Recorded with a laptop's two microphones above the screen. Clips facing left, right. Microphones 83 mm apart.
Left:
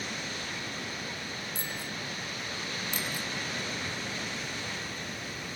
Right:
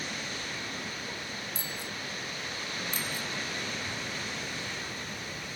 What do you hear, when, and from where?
1.6 s a bicycle bell: 50° left (ahead or behind)
2.9 s a bicycle bell: 75° left (ahead or behind)